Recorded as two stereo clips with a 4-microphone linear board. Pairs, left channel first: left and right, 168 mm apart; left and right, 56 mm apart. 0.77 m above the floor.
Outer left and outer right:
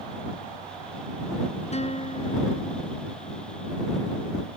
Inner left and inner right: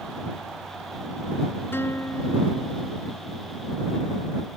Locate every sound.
1.7 s a guitar: 40° left (ahead or behind)